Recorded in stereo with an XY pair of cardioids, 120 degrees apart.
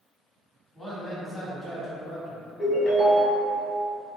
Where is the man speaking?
10° left, 1.4 m; by 2.5 s 30° right, 0.7 m.